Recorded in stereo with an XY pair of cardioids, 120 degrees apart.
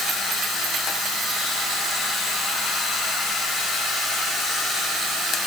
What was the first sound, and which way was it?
Only background noise.